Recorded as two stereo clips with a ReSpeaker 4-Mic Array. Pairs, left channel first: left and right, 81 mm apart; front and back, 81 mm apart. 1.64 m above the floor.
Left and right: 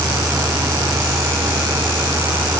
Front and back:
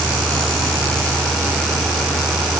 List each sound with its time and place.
Only background noise.